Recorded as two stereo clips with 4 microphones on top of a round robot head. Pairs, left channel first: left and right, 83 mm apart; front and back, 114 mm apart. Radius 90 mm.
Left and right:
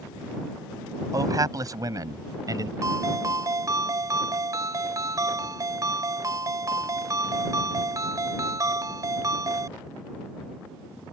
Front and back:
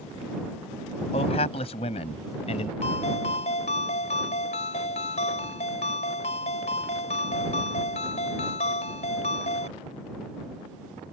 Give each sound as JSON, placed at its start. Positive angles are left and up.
{"t": 1.1, "sound": "a man speaking", "azimuth_deg": -45}
{"t": 2.8, "sound": "a ringtone", "azimuth_deg": -45}